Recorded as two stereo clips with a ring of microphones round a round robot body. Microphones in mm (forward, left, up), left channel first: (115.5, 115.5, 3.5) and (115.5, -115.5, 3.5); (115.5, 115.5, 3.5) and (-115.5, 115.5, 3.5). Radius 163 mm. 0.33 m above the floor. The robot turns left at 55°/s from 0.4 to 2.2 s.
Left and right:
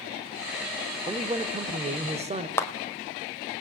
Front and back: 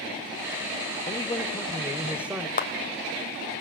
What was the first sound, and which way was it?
A man speaking, 40° right.